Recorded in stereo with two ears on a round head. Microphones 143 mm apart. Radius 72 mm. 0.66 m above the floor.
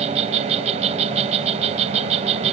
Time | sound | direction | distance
0.0 | an insect | 40° right (ahead or behind) | ?